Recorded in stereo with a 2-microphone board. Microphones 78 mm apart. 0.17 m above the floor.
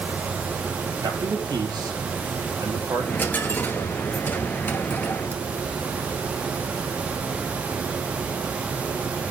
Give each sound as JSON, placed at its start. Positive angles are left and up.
{"t": 1.0, "sound": "a man speaking", "side_deg": -60, "distance_m": 5.0}
{"t": 3.0, "sound": "a dropped coin", "side_deg": 20, "distance_m": 1.5}